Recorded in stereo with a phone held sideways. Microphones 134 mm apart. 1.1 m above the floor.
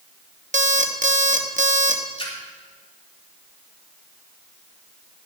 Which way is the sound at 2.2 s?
40° left (ahead or behind).